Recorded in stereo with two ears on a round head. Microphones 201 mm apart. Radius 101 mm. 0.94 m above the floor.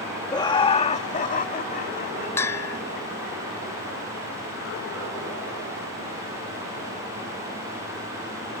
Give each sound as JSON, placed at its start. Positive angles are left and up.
{"t": 0.3, "sound": "laughter", "side_deg": 15}
{"t": 2.4, "sound": "a bell", "side_deg": 10}